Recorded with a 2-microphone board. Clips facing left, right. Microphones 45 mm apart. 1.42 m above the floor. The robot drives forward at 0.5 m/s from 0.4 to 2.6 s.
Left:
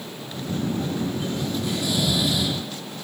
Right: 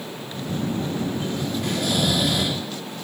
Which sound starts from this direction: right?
Snoring, at 1.6 s.